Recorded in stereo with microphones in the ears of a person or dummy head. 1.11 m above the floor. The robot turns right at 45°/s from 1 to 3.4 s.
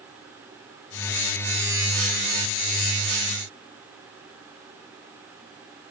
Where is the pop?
I don't hear a pop.